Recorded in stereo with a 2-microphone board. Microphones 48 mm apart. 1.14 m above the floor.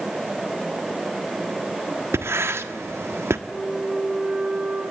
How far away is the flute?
About 8.5 m.